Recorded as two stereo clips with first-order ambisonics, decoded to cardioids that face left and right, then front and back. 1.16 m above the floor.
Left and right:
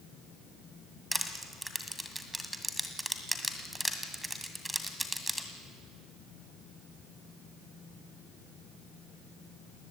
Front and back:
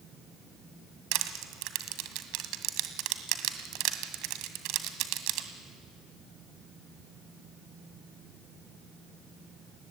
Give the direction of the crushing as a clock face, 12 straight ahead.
6 o'clock.